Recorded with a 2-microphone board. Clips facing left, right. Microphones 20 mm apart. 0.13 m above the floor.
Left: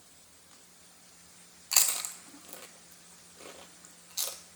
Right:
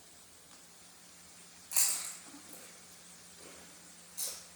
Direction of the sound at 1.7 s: 80° left.